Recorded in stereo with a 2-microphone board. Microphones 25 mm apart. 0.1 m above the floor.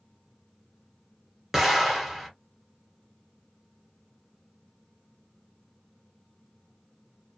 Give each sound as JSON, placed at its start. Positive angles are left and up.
{"t": 1.5, "sound": "an explosion", "side_deg": -10, "distance_m": 2.0}